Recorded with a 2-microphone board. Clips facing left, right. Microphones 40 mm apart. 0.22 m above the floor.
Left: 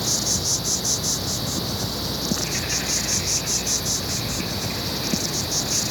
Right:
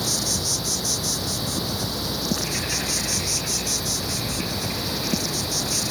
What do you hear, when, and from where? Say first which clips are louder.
0.0 s an insect: even; 5° right (ahead or behind)